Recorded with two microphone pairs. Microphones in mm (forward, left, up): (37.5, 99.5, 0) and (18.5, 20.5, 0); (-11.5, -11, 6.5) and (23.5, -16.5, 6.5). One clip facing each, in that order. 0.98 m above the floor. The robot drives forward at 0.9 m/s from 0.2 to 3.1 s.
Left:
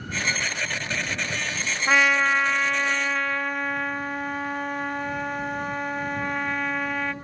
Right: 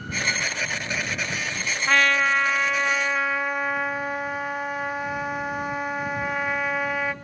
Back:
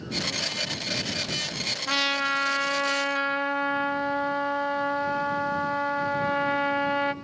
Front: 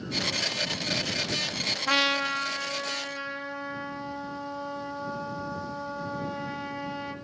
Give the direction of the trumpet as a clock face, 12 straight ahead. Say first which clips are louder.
Even, even; 11 o'clock.